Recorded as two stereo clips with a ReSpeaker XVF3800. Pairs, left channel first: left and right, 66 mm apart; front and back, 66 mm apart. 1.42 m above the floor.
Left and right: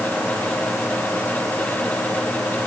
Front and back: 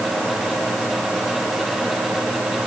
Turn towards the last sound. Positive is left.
No sound to turn to.